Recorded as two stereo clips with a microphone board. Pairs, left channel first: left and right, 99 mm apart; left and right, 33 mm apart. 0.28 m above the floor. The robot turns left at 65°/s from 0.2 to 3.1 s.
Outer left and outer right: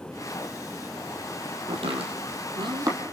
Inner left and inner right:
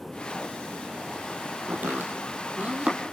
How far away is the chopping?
About 3 m.